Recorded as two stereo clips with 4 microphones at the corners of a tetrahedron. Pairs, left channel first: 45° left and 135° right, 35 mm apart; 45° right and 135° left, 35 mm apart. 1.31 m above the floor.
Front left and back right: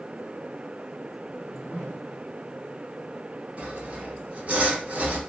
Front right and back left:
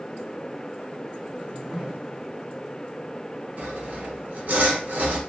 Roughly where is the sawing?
Behind.